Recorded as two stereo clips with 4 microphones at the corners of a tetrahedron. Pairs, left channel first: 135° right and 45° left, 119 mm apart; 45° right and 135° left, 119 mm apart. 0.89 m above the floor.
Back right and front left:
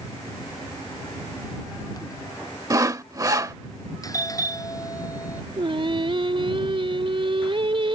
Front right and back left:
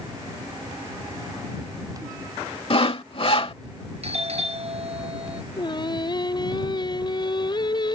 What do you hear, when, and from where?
2.7 s sawing: 10° right
4.0 s a doorbell: 165° left
5.6 s singing: 5° left